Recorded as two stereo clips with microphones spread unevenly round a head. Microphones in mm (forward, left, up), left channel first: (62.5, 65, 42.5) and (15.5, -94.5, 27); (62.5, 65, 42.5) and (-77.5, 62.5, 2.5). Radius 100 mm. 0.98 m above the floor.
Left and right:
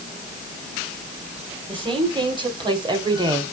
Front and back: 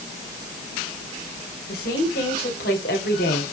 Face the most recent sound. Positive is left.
turn(degrees=-45)